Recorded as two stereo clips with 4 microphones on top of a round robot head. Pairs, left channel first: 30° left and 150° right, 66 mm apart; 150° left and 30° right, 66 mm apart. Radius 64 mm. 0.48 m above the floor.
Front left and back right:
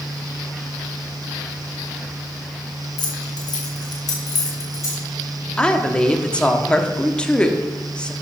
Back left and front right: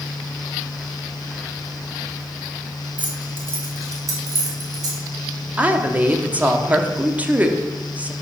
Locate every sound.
3.0 s keys jangling: 40° left, 2.5 m; by 5.0 s 15° right, 3.5 m
5.6 s a woman speaking: 25° right, 1.1 m